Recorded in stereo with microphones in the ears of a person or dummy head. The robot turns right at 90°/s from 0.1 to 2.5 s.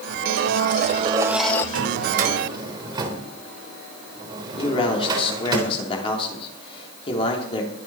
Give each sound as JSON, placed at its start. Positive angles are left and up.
{"t": 0.3, "sound": "a blender", "azimuth_deg": -100, "distance_m": 0.9}
{"t": 1.8, "sound": "a drawer", "side_deg": -80, "distance_m": 3.5}
{"t": 4.6, "sound": "a man speaking", "side_deg": 35, "distance_m": 3.5}